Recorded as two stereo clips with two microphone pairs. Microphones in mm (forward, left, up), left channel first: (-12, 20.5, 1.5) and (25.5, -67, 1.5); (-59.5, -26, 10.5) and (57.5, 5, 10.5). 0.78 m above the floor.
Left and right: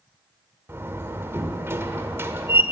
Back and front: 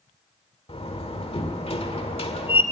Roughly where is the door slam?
Behind right.